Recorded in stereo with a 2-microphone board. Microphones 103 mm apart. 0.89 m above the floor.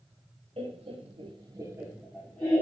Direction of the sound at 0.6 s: 70° right (ahead or behind).